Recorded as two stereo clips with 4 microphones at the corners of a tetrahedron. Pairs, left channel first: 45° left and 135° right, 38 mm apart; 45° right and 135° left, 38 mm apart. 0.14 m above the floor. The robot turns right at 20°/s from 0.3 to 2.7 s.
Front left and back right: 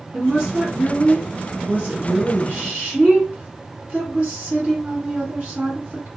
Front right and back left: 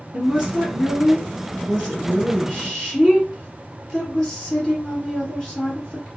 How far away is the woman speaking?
About 1.9 m.